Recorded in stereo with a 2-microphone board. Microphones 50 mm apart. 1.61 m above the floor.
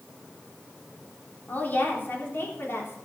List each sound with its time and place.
1.5 s a woman speaking: 35° left (ahead or behind), 3.5 m; by 3.0 s 55° left (ahead or behind), 3.5 m